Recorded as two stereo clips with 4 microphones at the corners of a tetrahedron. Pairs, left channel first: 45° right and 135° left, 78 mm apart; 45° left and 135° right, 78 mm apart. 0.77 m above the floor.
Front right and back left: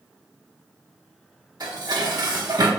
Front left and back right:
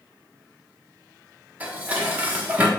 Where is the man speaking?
No man speaking in this recording.